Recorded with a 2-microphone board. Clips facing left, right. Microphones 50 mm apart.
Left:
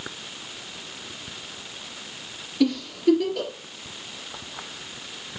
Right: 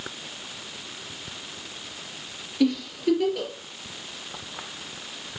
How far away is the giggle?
About 3 m.